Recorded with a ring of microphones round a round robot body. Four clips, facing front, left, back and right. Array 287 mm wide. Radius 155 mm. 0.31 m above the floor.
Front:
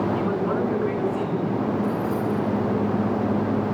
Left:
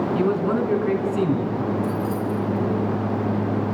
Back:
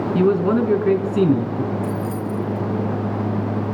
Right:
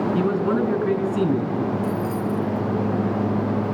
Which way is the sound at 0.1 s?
175° right.